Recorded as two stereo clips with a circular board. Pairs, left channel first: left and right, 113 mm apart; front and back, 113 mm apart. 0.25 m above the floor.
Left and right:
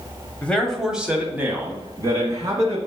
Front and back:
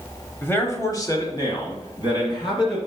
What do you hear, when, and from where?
0.4 s a man speaking: 35° left, 1.0 m; by 2.8 s 40° right, 2 m